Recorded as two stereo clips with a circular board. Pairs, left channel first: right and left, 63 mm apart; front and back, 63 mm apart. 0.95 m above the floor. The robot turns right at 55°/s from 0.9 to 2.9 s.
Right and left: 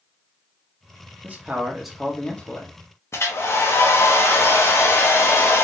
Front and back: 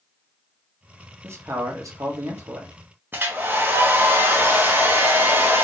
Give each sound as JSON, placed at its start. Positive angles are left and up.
{"t": 1.2, "sound": "a man speaking", "azimuth_deg": 145, "distance_m": 1.3}
{"t": 3.1, "sound": "a hair dryer", "azimuth_deg": -130, "distance_m": 1.1}